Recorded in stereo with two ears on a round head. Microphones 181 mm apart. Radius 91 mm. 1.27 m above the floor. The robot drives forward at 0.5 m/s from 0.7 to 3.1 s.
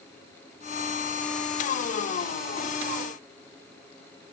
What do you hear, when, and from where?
Only background noise.